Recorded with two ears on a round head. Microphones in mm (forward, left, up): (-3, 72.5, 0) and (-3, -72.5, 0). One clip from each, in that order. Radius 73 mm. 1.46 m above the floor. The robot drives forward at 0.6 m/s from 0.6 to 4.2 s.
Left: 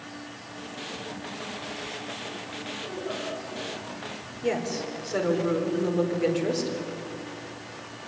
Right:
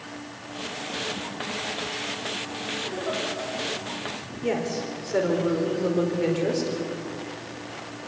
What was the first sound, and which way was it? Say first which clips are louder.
A giggle: right 4 dB; 35° right (ahead or behind).